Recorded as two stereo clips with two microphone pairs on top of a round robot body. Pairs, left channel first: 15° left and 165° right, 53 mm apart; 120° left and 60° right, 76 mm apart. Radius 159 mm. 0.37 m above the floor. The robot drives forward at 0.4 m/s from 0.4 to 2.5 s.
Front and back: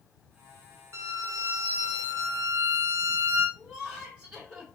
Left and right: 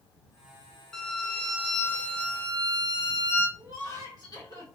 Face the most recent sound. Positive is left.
turn(degrees=120)